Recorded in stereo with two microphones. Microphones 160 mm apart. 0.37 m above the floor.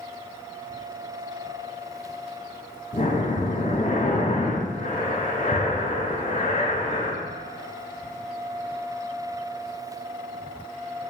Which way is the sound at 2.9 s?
60° left (ahead or behind).